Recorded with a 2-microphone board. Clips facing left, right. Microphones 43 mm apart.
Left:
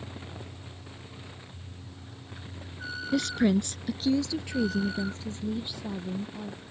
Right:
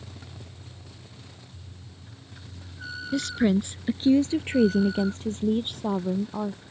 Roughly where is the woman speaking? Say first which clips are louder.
Right 1 dB; centre.